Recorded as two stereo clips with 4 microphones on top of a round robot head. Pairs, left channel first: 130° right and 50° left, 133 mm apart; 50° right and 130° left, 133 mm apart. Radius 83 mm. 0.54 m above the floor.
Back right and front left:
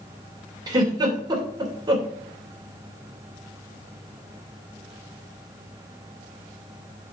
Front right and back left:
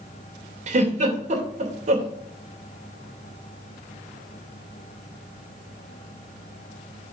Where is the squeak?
I don't hear a squeak.